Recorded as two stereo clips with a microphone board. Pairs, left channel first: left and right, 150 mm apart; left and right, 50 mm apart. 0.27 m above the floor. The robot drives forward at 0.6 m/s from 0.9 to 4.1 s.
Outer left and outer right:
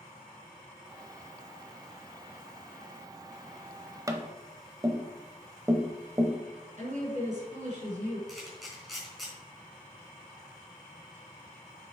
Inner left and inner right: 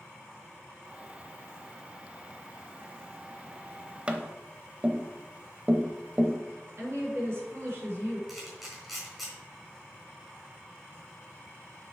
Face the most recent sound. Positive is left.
turn(degrees=0)  # may be behind; listen again after turning